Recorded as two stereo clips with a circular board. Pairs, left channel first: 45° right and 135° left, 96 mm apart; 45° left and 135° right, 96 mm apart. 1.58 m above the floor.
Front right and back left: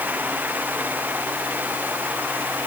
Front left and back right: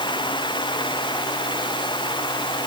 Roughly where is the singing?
No singing in this recording.